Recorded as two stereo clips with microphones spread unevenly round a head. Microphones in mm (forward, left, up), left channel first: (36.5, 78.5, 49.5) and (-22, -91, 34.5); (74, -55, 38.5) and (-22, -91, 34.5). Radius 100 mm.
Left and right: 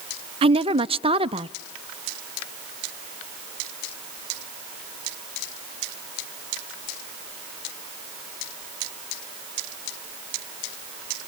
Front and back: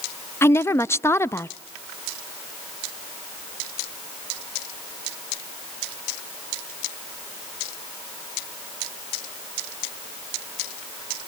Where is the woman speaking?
45° right, 0.6 m.